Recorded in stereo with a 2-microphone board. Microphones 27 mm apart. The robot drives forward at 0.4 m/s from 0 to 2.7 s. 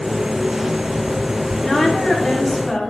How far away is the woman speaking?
About 0.8 m.